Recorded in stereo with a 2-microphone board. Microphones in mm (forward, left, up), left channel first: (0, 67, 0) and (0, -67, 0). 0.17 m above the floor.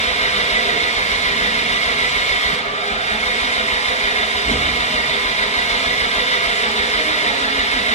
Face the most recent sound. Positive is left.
turn(degrees=60)  # may be behind; listen again after turning